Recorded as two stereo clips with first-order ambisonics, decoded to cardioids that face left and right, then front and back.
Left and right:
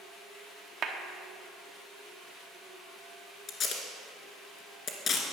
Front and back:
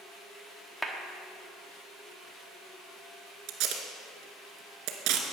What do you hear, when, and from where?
0.8 s a clap: 90° right, 0.9 m
3.5 s tape being pulled: 150° left, 1.4 m